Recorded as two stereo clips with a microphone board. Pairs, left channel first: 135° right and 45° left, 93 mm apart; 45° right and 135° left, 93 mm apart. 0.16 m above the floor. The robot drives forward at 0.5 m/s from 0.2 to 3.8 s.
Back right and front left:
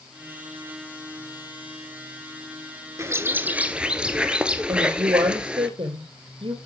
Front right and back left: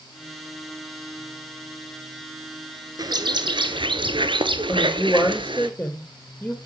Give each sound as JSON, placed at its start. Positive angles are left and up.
{"t": 3.0, "sound": "a bird", "azimuth_deg": 100, "distance_m": 0.9}
{"t": 4.7, "sound": "a woman speaking", "azimuth_deg": 35, "distance_m": 3.0}